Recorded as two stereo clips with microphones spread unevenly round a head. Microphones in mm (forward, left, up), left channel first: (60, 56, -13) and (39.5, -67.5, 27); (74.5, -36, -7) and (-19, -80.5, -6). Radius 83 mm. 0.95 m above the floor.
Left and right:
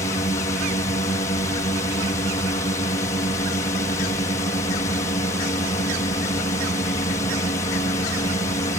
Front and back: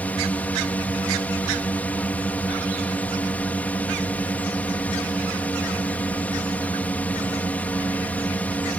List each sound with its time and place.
0.0 s a drone: 95° left